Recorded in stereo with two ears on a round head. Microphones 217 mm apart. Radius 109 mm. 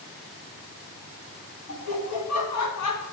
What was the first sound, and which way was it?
Laughter, 70° left (ahead or behind).